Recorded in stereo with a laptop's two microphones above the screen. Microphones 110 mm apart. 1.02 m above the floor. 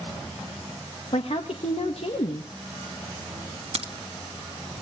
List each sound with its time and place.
1.1 s a woman speaking: 65° left (ahead or behind), 1.5 m
3.8 s a crack: 70° right (ahead or behind), 1.4 m